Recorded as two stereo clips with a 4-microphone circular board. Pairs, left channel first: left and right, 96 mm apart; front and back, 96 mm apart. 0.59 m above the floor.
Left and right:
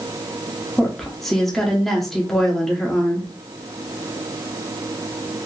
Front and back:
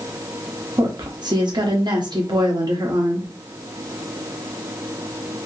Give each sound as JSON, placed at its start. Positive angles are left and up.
{"t": 0.8, "sound": "a woman speaking", "azimuth_deg": 175, "distance_m": 0.8}